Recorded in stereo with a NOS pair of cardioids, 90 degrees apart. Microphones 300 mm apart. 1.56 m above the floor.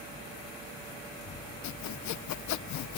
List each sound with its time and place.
1.6 s sawing: 70° left